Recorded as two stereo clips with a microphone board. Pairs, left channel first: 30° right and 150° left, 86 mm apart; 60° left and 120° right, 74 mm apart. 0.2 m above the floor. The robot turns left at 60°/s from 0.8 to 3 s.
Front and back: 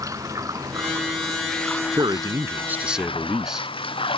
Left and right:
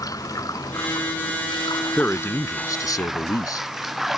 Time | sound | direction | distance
0.0 | running water | 100° left | ?
2.0 | a man speaking | 130° left | ?